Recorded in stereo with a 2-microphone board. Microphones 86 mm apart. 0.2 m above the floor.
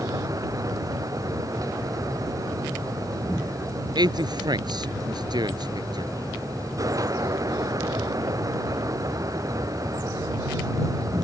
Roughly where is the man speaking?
Right.